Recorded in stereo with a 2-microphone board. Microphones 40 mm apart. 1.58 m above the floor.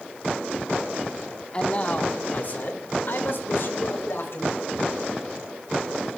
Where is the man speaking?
30° left (ahead or behind), 1.8 m; by 4.7 s 75° left (ahead or behind), 4.5 m.